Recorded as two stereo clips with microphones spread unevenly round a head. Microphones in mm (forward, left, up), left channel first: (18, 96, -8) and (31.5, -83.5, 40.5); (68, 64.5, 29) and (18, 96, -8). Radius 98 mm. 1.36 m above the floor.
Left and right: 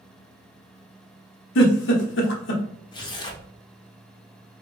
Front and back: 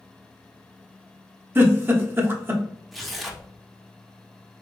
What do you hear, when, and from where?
1.6 s a giggle: 70° left, 0.9 m
2.9 s tearing paper: 20° left, 0.8 m